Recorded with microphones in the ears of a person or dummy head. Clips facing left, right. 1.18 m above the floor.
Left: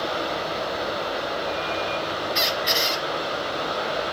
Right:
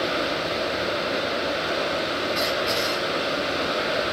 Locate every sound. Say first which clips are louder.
0.0 s running water: right 2 dB; 35° right (ahead or behind), 0.8 m
2.4 s a squeak: right 2 dB; 10° left (ahead or behind), 1.1 m